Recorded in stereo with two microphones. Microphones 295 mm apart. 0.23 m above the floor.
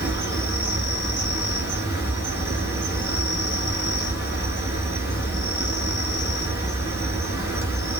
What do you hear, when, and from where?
0.0 s an insect: 10° right (ahead or behind), 1.6 m